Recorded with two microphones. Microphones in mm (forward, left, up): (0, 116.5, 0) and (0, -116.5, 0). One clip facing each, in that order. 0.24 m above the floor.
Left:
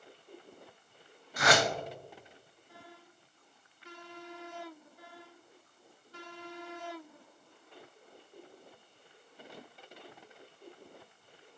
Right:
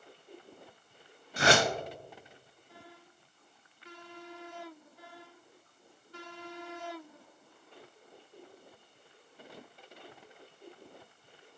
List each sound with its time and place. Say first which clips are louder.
1.4 s a whoosh: right 2 dB; 30° right (ahead or behind), 0.6 m